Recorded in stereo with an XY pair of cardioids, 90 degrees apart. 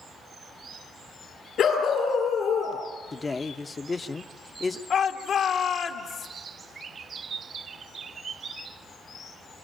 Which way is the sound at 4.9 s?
65° left.